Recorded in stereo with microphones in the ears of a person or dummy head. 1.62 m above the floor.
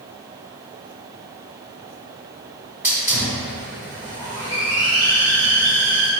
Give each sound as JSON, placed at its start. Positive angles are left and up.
{"t": 2.8, "sound": "a hiss", "side_deg": -5, "distance_m": 1.4}